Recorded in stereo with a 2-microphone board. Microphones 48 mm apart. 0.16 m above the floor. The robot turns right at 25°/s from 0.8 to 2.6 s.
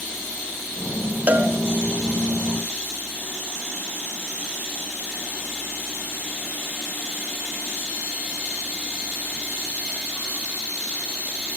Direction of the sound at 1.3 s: 40° right (ahead or behind).